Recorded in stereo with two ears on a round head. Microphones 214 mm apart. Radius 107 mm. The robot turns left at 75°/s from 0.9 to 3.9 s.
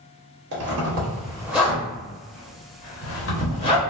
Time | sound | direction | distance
0.5 | a zipper | 45° right (ahead or behind) | 1.0 m